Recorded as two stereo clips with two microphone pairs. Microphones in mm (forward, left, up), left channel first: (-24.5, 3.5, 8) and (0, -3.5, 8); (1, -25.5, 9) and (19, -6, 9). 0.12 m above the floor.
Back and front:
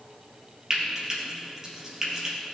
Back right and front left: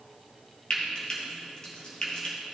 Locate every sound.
0.7 s frying: 80° right, 3 m